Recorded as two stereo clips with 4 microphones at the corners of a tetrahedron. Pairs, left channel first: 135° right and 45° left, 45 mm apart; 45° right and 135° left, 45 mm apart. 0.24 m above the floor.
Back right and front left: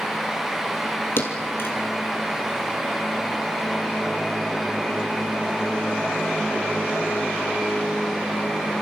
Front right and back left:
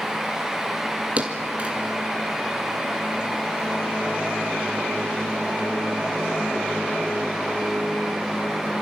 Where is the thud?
165° right, 2.5 m.